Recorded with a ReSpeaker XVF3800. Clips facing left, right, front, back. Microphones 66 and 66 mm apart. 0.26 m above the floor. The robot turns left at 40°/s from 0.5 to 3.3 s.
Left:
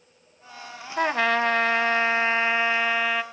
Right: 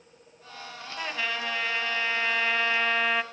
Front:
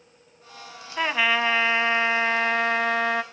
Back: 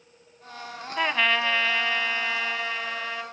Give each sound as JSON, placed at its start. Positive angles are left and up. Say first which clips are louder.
{"t": 1.0, "sound": "a trumpet", "louder": "left 10 dB, front 1 dB", "azimuth_deg": 90, "distance_m": 0.6}